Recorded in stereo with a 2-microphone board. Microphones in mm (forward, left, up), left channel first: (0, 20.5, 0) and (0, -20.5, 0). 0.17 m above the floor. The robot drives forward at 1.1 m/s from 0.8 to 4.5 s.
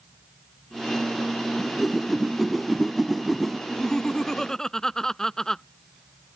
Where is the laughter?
20° left (ahead or behind); by 5.6 s 10° left (ahead or behind).